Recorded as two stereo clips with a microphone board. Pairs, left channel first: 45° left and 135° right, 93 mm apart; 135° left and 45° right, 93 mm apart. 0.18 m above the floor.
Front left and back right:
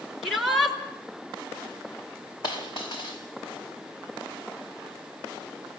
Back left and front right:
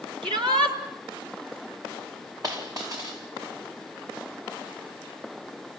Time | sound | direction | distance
0.2 | a shout | 45° right | 3 m
2.4 | a dropped coin | 5° left | 4.5 m